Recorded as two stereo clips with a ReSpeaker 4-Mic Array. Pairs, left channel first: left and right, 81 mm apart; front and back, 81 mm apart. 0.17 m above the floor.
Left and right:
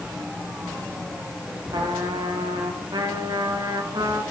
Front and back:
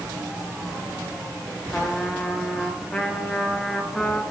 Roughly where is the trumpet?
Right.